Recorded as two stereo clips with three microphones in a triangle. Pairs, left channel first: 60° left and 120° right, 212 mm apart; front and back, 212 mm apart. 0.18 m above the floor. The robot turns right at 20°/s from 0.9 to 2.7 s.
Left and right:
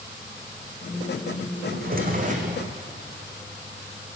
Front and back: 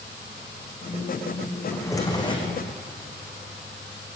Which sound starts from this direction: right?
A drawer, at 1.7 s.